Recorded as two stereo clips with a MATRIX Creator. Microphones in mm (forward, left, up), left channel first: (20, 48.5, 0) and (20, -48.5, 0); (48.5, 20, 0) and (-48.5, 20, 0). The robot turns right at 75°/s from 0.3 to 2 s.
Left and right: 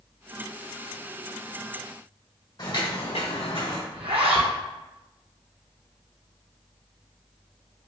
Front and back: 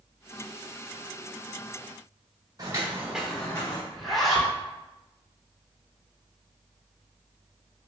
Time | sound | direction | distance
2.6 | footsteps | 135° left | 1.4 m
3.9 | a zipper | 85° right | 0.9 m